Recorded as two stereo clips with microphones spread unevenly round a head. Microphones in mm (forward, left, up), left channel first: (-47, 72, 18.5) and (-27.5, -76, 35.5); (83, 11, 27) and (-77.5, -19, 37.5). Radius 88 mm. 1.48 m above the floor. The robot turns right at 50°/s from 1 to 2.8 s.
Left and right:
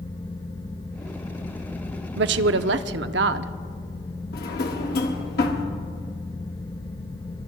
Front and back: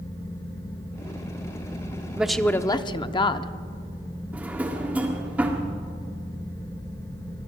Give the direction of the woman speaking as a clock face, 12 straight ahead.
3 o'clock.